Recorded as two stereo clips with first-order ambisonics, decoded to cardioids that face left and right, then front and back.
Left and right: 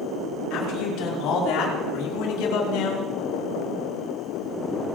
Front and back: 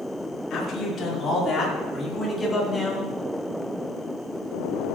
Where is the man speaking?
60° left, 4 m; by 3.1 s 90° left, 3 m.